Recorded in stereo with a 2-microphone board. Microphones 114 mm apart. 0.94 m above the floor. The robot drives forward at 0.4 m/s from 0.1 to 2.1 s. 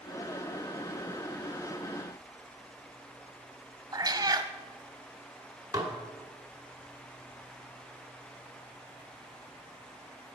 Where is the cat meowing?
35° right (ahead or behind), 0.6 m.